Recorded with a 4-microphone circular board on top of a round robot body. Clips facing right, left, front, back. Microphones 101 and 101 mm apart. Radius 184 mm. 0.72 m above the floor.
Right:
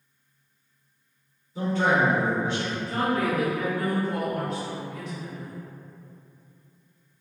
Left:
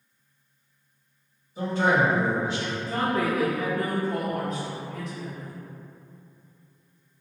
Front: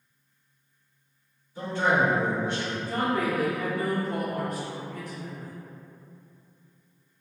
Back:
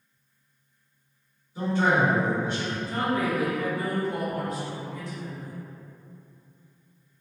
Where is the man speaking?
100° right, 1.8 m.